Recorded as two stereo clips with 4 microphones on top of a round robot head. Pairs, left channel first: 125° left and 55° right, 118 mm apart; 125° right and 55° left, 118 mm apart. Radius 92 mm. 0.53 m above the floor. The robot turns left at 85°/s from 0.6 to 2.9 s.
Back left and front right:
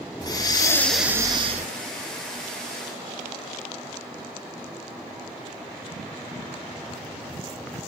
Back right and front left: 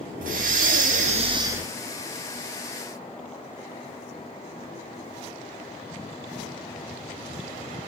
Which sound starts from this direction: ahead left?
Breathing, at 0.2 s.